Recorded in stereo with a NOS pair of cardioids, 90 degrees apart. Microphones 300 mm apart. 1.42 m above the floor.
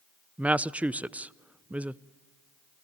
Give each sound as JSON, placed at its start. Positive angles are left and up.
{"t": 0.4, "sound": "a woman speaking", "azimuth_deg": -5, "distance_m": 0.5}